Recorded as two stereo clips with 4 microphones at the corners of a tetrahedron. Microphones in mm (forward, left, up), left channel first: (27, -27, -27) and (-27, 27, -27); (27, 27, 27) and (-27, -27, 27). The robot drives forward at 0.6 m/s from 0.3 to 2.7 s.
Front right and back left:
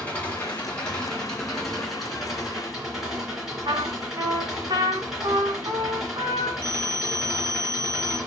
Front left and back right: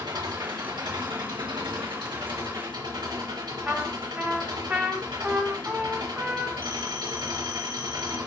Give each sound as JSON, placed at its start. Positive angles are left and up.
{"t": 0.0, "sound": "an engine running", "azimuth_deg": -115, "distance_m": 2.5}
{"t": 3.6, "sound": "a trumpet", "azimuth_deg": 160, "distance_m": 1.8}
{"t": 6.6, "sound": "a phone ringing", "azimuth_deg": -120, "distance_m": 2.0}